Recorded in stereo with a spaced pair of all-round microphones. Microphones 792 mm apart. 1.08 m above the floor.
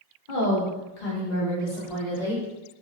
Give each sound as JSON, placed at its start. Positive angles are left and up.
{"t": 0.3, "sound": "a woman speaking", "side_deg": 85, "distance_m": 1.3}